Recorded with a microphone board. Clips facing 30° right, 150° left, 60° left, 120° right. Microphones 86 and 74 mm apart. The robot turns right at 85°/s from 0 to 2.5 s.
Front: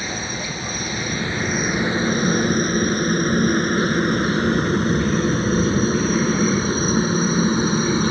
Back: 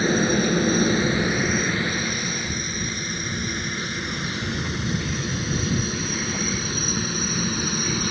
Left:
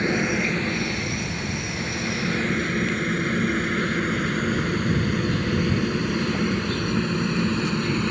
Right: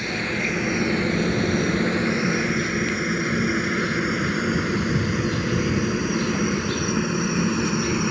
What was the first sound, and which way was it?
A helicopter, 110° left.